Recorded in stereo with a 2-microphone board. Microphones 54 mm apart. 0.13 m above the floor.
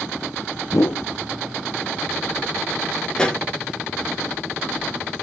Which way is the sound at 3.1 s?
20° left (ahead or behind).